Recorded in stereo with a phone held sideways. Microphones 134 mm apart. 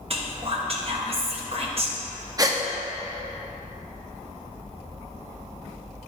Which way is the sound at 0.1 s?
45° right (ahead or behind).